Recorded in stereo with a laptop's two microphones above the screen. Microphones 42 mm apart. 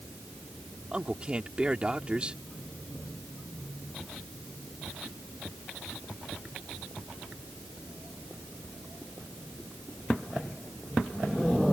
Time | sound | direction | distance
0.9 | a man speaking | 25° right (ahead or behind) | ?